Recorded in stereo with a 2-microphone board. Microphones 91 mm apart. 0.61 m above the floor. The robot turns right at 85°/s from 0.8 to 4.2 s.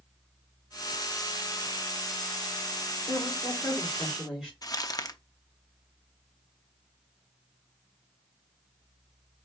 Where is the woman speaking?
90° left, 3 m; by 4.5 s 175° right, 3 m.